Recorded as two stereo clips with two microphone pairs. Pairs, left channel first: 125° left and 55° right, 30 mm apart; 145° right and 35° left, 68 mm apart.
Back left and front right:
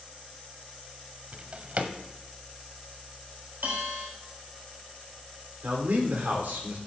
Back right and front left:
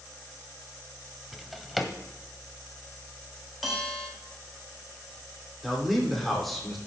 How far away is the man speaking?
About 3 m.